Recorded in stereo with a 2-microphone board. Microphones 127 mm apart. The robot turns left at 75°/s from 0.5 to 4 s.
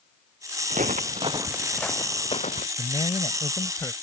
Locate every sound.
0.7 s footsteps: 80° right; by 2.7 s 80° left
2.8 s a man speaking: 115° left; by 3.9 s 30° left